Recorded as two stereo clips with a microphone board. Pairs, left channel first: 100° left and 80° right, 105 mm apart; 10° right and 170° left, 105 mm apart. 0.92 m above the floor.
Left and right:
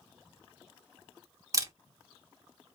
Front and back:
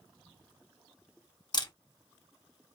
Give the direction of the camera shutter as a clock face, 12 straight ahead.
1 o'clock.